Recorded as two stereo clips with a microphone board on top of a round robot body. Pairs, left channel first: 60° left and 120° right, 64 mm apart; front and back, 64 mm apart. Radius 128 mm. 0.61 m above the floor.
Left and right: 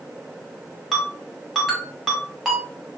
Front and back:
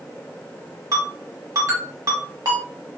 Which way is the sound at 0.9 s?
150° left.